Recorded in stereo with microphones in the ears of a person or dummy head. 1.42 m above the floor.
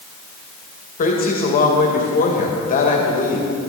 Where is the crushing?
I don't hear crushing.